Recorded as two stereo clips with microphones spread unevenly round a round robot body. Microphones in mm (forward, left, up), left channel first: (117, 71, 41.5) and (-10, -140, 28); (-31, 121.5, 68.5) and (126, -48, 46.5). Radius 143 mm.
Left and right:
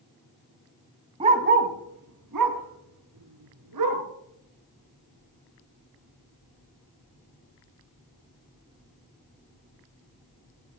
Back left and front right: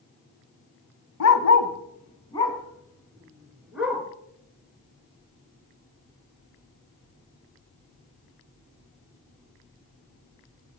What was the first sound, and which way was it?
A dog barking, 165° left.